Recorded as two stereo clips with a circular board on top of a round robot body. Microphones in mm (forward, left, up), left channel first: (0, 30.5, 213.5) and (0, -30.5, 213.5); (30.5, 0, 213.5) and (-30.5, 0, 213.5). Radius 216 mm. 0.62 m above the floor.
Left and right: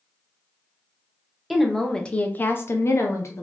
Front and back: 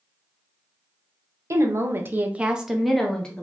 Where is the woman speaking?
175° right, 0.9 m; by 3.4 s 70° left, 1.0 m.